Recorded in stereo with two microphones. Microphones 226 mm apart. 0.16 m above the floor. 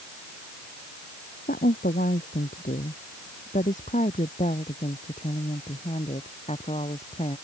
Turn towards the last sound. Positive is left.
turn(degrees=30)  # may be behind; listen again after turning